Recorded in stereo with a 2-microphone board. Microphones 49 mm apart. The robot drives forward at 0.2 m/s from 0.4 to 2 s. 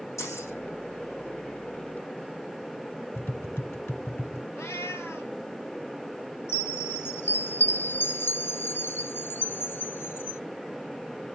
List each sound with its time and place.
0.2 s keys jangling: 80° left, 8.5 m
3.1 s tapping: 50° left (ahead or behind), 1.3 m
4.5 s a cat meowing: 60° left (ahead or behind), 1.8 m
6.5 s a chime: 50° left (ahead or behind), 0.6 m